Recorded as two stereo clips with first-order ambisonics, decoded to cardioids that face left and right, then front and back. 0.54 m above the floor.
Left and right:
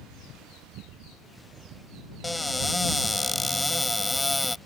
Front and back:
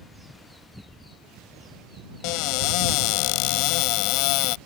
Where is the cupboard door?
5° left.